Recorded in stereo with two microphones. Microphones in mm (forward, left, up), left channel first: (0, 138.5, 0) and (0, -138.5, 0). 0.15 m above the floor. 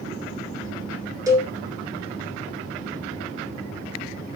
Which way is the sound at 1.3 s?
10° right (ahead or behind).